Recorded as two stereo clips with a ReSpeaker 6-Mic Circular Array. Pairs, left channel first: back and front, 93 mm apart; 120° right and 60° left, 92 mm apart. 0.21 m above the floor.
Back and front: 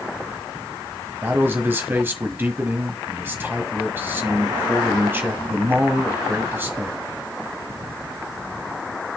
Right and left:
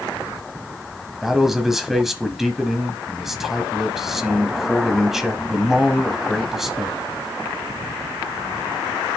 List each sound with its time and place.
1.2 s a man speaking: 20° right, 1.2 m